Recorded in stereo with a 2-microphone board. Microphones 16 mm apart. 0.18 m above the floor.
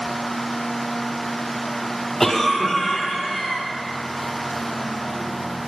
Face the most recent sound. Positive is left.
turn(degrees=20)  # may be behind; listen again after turning